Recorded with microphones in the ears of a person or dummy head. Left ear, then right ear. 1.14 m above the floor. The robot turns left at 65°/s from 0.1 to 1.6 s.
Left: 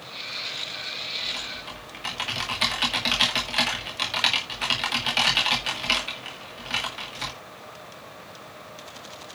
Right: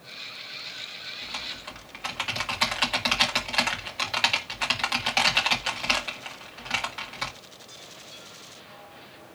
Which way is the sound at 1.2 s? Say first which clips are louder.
Left 4 dB; 50° right (ahead or behind).